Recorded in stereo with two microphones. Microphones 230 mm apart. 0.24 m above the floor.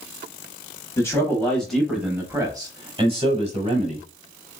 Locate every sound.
1.0 s a man speaking: 10° left (ahead or behind), 1.1 m; by 4.1 s 30° right (ahead or behind), 1.4 m